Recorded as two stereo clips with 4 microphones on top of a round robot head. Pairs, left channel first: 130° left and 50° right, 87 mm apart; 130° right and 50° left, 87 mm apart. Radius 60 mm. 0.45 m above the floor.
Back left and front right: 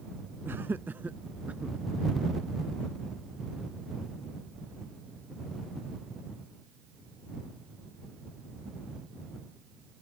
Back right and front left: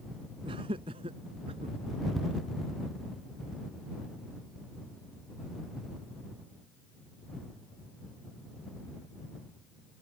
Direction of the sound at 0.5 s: 20° left.